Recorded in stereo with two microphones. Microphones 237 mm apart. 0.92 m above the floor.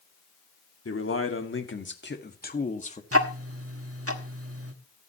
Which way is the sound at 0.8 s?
65° left (ahead or behind).